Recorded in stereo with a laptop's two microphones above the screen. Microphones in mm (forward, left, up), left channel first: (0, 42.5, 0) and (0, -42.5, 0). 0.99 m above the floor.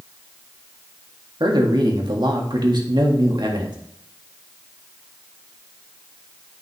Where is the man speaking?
60° right (ahead or behind), 1.8 m.